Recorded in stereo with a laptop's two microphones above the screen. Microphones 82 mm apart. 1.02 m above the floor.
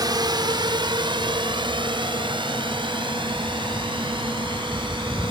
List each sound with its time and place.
0.0 s a drone: 55° right (ahead or behind); by 5.3 s 80° right